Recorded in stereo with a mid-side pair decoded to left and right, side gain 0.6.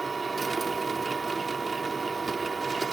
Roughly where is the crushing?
I don't hear crushing.